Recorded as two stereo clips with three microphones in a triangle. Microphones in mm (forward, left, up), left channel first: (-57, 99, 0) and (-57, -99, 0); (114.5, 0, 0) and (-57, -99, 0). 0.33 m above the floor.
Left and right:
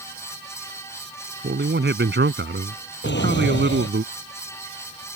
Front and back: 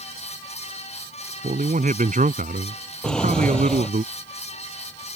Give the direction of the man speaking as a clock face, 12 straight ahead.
3 o'clock.